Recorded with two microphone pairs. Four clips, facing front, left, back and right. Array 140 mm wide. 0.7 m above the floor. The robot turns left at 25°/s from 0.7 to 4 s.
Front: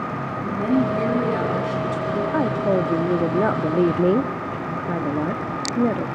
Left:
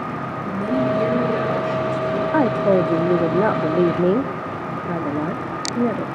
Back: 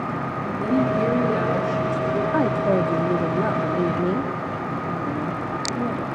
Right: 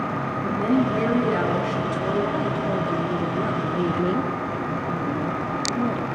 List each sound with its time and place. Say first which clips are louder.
0.4 s a woman speaking: left 1 dB, front 1 dB; 20° right, 7 m; by 2.2 s 55° right, 7 m
2.3 s a woman speaking: left 8 dB, even; 85° left, 0.8 m; by 6.1 s 45° left, 0.8 m